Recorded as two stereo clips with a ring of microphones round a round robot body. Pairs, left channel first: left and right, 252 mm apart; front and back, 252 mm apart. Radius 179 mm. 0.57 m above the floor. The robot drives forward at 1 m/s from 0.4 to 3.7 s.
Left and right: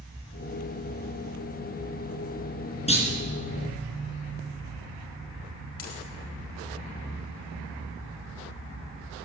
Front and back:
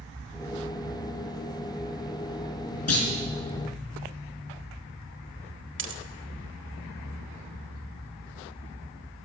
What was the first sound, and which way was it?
A clunk, 25° left.